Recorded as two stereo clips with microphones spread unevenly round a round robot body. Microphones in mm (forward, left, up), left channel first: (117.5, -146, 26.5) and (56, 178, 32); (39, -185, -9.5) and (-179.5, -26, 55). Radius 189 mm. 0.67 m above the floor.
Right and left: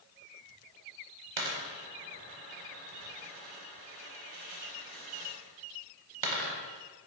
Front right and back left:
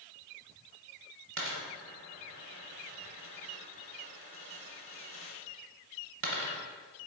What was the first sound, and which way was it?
A dropped coin, 110° left.